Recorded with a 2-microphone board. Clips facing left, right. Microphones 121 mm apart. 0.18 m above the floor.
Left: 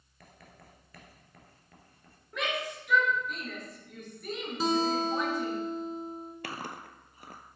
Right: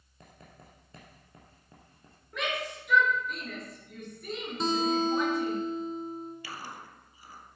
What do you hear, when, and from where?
0.2 s writing: 25° right (ahead or behind), 1.9 m
2.3 s a shout: centre (ahead or behind), 3 m
4.6 s a guitar: 5° left (ahead or behind), 1.2 m
6.4 s chewing: 65° left (ahead or behind), 0.7 m